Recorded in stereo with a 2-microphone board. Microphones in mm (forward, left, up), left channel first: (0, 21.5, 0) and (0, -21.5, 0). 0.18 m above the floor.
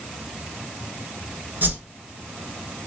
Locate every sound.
1.6 s a whoosh: 55° right (ahead or behind), 0.8 m